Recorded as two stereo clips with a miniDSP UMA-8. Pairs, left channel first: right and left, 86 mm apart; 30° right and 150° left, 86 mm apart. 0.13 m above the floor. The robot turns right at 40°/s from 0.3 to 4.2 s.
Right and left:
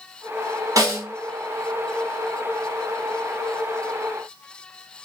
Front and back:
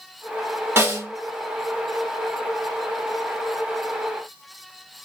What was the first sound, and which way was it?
A snare drum, 100° left.